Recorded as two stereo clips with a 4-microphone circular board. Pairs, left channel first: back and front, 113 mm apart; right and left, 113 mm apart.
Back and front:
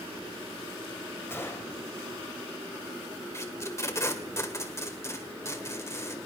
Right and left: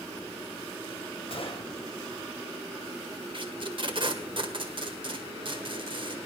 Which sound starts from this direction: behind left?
Tape being pulled, at 3.3 s.